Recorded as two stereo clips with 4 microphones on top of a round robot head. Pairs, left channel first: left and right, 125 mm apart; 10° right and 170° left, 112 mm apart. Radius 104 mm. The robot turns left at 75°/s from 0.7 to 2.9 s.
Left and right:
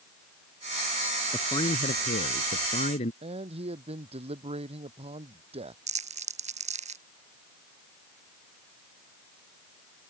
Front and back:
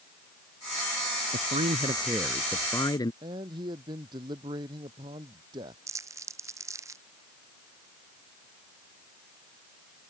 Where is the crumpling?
120° right.